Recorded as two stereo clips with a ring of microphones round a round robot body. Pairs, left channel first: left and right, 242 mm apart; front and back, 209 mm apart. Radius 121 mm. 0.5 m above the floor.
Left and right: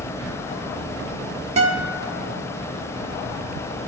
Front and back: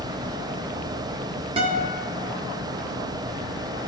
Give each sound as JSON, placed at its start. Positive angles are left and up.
{"t": 1.6, "sound": "a guitar", "azimuth_deg": -130, "distance_m": 1.1}